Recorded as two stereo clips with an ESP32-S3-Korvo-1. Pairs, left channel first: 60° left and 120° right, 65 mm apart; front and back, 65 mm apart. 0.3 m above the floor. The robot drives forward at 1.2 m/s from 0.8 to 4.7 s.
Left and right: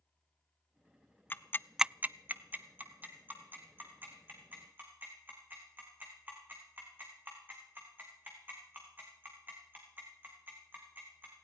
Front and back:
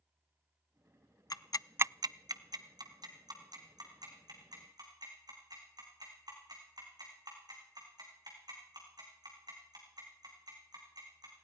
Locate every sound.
1.3 s ticking: 5° left, 0.5 m; by 11.3 s straight behind, 3.5 m